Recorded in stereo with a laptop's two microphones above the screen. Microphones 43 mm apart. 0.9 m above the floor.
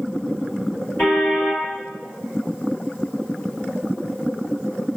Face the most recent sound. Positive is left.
turn(degrees=40)  # may be behind; listen again after turning